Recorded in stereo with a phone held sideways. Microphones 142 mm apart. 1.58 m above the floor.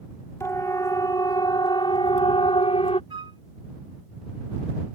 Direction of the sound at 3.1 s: 35° right (ahead or behind).